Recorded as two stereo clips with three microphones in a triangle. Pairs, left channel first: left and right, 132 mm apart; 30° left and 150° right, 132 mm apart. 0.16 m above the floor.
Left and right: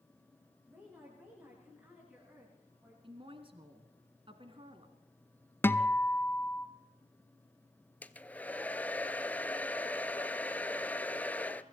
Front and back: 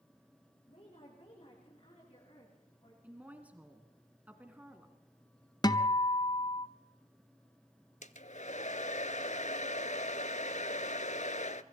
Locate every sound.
0.7 s a woman speaking: 20° right, 9.5 m; by 2.9 s 15° right, 11 m
3.0 s a woman speaking: 75° right, 1.6 m
5.6 s a guitar: 35° left, 0.7 m
8.0 s a hair dryer: 15° left, 0.7 m